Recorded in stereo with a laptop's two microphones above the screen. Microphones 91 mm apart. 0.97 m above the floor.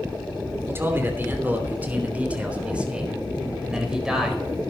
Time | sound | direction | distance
0.7 | a man speaking | 30° right (ahead or behind) | 3 m